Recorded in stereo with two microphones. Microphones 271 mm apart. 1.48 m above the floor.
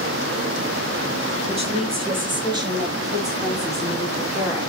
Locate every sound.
1.5 s a woman speaking: 25° right (ahead or behind), 2.5 m; by 4.7 s 10° right (ahead or behind), 5 m